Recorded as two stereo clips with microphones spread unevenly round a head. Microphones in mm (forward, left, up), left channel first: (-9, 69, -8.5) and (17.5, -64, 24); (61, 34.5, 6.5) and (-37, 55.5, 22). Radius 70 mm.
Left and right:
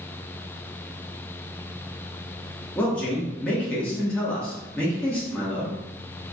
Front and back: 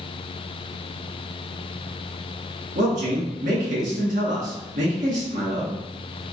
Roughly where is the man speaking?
Behind.